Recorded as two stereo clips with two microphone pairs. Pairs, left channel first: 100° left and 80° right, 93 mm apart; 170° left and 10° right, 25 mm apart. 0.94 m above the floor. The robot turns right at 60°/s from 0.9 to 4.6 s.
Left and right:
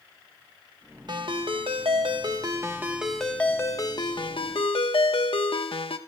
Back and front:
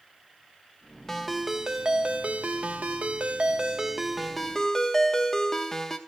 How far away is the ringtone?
About 1.3 m.